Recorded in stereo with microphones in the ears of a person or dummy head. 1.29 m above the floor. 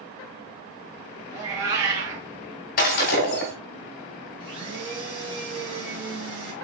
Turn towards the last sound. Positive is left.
turn(degrees=-70)  # may be behind; listen again after turning